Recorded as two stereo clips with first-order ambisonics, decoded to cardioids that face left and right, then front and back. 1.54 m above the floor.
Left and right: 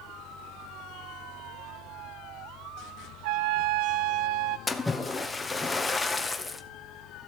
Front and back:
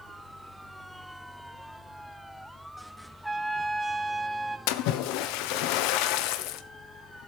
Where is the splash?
10° left, 1.1 m.